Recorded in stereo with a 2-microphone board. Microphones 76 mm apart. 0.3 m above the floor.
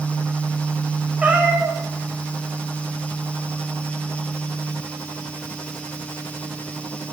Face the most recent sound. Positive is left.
turn(degrees=-20)  # may be behind; listen again after turning